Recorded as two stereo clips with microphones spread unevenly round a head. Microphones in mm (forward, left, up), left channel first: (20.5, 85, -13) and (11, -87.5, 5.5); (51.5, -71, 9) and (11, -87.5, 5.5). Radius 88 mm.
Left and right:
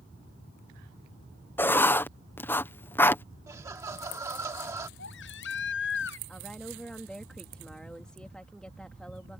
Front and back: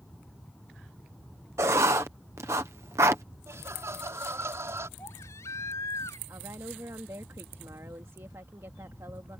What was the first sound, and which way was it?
Writing, 165° left.